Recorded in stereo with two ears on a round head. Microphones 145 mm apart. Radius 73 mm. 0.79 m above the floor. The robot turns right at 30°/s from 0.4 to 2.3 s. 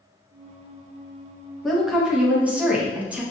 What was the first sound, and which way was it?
A woman speaking, centre (ahead or behind).